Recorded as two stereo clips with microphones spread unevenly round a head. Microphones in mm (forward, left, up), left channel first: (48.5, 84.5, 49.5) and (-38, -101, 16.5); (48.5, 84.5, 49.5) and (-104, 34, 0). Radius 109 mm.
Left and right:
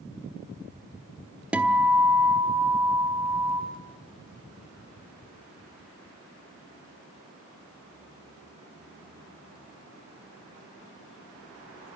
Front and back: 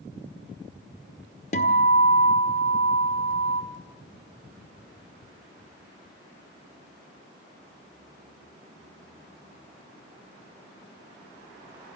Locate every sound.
1.5 s a guitar: 25° right, 1.3 m